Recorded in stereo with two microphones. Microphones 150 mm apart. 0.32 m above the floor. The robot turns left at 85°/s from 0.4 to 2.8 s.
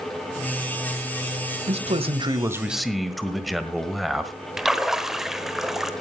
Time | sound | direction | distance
1.7 | a man speaking | 85° right | 1.5 m
4.6 | a splash | centre (ahead or behind) | 1.2 m